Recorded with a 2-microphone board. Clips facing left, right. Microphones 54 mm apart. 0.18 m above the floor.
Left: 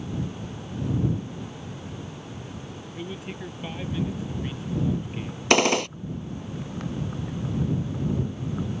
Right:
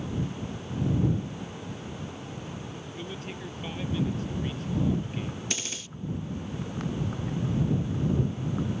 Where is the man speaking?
15° left (ahead or behind).